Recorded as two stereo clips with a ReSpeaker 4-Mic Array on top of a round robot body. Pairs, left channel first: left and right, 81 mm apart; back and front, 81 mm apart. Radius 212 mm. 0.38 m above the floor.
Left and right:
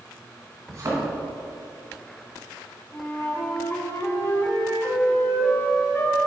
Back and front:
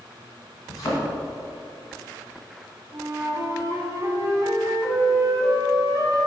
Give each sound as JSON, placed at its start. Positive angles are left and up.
{"t": 0.7, "sound": "a thud", "azimuth_deg": -145, "distance_m": 2.0}
{"t": 2.9, "sound": "a flute", "azimuth_deg": 40, "distance_m": 1.8}